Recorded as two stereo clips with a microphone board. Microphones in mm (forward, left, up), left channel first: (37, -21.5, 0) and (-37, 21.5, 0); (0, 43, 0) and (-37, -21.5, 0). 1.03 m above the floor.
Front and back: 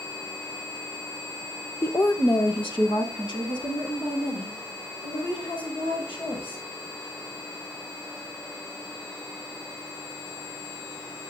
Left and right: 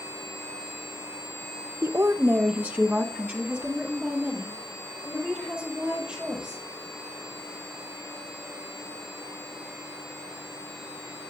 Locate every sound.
1.8 s a woman speaking: 90° right, 0.5 m; by 6.6 s 40° right, 5.5 m